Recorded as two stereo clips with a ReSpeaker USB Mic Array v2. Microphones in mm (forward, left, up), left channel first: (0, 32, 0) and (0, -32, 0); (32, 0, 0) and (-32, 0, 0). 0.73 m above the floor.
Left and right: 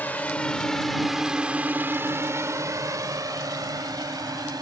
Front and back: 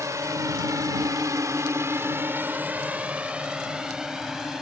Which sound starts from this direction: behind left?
A drone, at 0.0 s.